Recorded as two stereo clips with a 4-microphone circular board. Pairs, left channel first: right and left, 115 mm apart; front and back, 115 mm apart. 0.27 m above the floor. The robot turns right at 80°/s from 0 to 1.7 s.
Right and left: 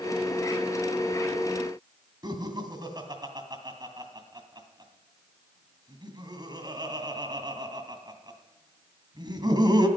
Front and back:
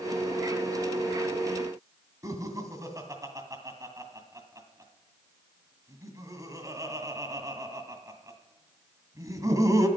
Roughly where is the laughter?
Behind left.